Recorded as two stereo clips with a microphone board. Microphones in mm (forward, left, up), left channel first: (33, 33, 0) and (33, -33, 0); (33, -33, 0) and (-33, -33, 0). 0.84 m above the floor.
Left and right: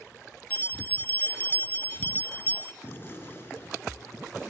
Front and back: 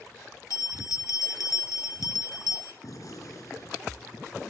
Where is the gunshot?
35° left, 3.5 m.